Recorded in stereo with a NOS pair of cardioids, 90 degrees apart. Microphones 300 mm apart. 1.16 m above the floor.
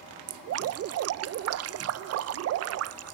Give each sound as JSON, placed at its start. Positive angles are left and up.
{"t": 0.3, "sound": "dripping", "azimuth_deg": -55}